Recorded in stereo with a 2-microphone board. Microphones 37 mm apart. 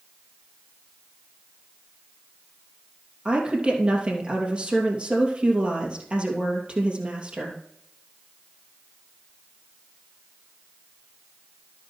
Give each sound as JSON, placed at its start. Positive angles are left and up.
{"t": 3.2, "sound": "a woman speaking", "side_deg": -35, "distance_m": 2.5}